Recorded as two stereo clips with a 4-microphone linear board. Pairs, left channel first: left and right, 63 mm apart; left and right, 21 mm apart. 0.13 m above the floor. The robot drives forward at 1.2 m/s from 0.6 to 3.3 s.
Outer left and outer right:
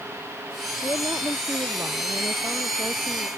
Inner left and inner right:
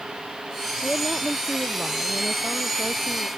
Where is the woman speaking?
55° right (ahead or behind); by 3.3 s 40° right (ahead or behind).